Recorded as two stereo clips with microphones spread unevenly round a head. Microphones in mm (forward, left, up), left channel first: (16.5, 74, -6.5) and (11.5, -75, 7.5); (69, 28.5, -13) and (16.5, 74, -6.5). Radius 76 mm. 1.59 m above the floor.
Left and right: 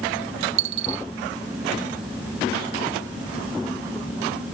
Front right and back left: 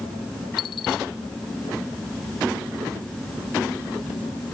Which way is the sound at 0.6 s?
95° right.